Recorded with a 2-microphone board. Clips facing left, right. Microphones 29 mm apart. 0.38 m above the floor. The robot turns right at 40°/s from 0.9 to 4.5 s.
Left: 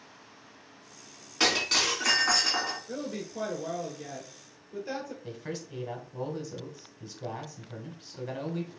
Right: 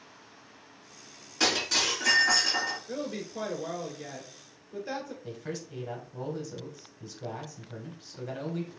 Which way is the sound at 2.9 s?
20° right (ahead or behind).